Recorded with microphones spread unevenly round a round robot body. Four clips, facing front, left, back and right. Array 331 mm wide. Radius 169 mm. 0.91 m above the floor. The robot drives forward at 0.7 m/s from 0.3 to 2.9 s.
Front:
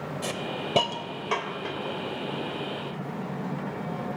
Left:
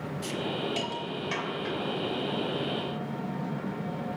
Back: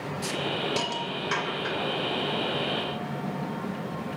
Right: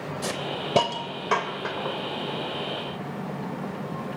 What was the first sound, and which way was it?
A hiss, 60° right.